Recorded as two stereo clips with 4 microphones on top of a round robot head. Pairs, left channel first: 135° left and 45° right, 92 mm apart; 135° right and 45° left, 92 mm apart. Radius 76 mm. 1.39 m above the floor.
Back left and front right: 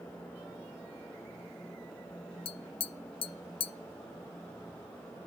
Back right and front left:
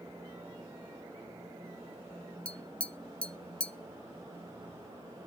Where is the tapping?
145° left, 0.6 m.